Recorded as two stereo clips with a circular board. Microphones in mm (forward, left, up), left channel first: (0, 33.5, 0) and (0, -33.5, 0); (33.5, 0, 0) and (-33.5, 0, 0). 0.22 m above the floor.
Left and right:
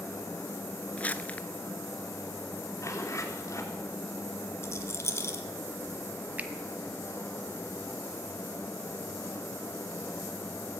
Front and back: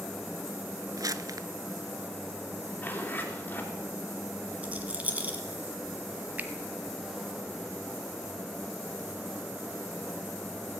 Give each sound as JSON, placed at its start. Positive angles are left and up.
{"t": 1.0, "sound": "crumpling", "azimuth_deg": 155, "distance_m": 0.7}
{"t": 2.8, "sound": "a zipper", "azimuth_deg": 60, "distance_m": 2.5}
{"t": 4.6, "sound": "a rattle", "azimuth_deg": 120, "distance_m": 1.6}
{"t": 6.4, "sound": "a finger snap", "azimuth_deg": -135, "distance_m": 1.1}